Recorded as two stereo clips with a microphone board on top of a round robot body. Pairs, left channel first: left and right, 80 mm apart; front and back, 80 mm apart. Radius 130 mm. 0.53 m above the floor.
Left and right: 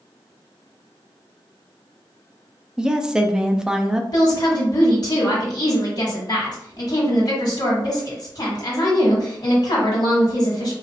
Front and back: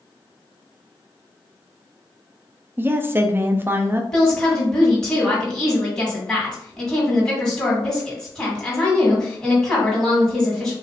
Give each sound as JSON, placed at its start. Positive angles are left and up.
{"t": 2.8, "sound": "a woman speaking", "azimuth_deg": -160, "distance_m": 0.6}
{"t": 4.1, "sound": "a woman speaking", "azimuth_deg": 80, "distance_m": 1.8}